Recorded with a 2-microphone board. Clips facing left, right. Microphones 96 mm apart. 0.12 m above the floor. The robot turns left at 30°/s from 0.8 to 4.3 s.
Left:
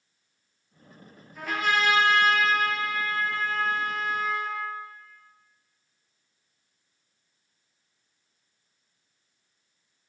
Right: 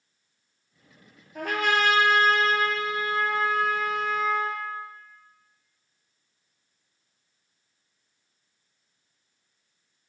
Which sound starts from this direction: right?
A trumpet, at 1.4 s.